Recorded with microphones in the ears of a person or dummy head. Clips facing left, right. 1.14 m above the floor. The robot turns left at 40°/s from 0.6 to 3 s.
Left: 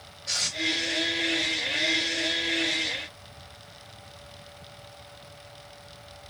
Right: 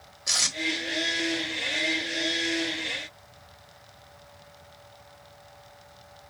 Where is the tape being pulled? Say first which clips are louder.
Right 2 dB; 70° right (ahead or behind), 1.3 m.